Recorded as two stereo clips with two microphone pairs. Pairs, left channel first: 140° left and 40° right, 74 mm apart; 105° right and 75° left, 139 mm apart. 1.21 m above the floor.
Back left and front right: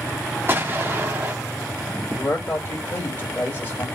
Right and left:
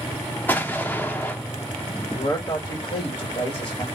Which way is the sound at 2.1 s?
165° right.